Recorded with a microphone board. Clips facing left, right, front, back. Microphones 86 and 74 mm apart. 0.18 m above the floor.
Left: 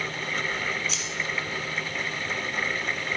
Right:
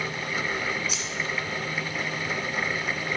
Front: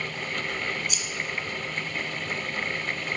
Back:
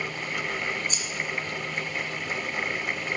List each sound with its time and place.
0.9 s scissors: 165° right, 1.6 m